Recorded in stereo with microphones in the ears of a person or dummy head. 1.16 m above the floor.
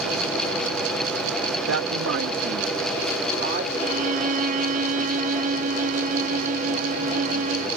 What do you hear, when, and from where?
1.7 s a woman speaking: 80° right; by 3.6 s 50° right (ahead or behind)
3.7 s a violin: 40° right (ahead or behind)